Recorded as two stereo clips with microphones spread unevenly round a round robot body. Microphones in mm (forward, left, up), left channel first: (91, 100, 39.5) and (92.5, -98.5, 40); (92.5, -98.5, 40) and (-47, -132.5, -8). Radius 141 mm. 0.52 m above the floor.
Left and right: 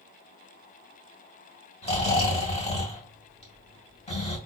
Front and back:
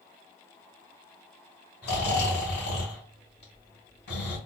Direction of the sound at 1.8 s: 35° left.